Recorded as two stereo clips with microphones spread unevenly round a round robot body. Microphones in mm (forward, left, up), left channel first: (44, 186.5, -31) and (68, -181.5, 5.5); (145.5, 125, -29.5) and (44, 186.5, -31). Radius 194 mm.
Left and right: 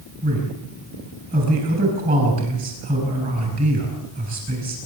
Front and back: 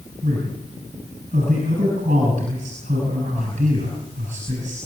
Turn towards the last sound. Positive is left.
turn(degrees=-155)